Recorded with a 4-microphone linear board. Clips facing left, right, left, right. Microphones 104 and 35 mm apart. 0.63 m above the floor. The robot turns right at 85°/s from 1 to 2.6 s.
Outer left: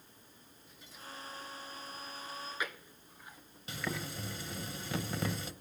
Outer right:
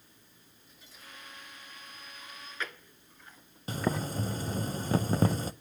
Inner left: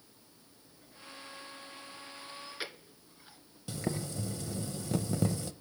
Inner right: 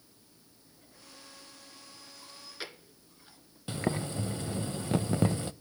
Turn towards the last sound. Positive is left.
turn(degrees=-40)  # may be behind; listen again after turning